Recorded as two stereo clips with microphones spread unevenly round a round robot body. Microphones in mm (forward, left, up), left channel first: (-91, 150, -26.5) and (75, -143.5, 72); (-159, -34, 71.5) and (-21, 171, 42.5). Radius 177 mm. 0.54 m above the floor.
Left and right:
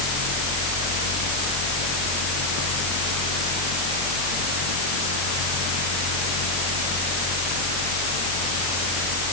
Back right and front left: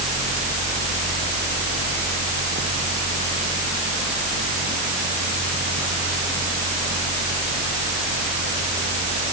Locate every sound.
Only background noise.